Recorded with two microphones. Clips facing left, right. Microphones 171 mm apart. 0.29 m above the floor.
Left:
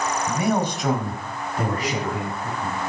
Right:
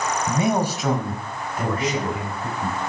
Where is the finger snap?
I don't hear a finger snap.